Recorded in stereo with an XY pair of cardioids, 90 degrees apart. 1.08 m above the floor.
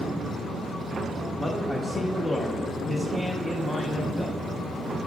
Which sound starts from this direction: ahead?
A man speaking, at 1.4 s.